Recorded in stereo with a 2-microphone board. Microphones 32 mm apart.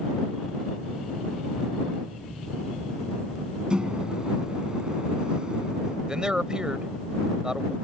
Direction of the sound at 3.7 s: 30° right (ahead or behind).